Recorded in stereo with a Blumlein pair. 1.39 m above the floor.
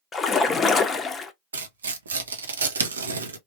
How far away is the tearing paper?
About 0.7 m.